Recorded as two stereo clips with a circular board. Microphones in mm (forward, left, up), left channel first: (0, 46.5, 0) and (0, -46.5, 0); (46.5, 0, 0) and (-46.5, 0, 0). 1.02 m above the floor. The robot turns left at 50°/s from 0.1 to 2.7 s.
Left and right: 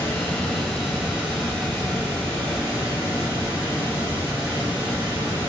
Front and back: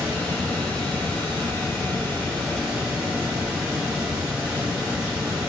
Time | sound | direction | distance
0.0 | running water | 30° left | 1.5 m